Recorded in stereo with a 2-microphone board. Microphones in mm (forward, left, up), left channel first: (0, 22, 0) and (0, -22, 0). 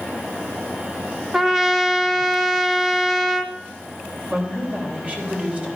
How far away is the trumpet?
About 1.0 m.